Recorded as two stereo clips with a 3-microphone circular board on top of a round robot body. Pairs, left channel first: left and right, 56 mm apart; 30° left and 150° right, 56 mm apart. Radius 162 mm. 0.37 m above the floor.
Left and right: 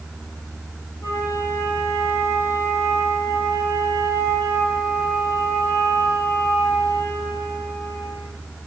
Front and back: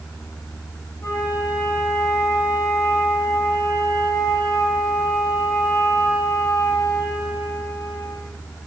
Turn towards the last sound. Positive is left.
turn(degrees=60)